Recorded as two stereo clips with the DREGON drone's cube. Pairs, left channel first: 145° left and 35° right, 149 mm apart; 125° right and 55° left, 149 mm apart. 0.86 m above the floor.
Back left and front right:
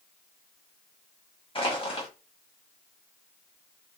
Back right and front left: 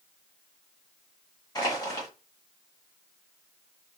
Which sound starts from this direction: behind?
Crushing, at 1.6 s.